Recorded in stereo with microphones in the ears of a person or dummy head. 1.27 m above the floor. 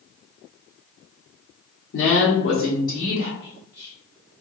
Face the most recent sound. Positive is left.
turn(degrees=30)  # may be behind; listen again after turning